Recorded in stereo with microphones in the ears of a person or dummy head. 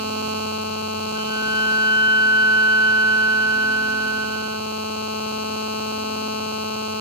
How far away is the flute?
About 1.1 m.